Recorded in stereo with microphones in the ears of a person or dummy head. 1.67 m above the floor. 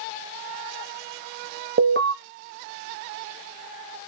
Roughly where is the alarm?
Right.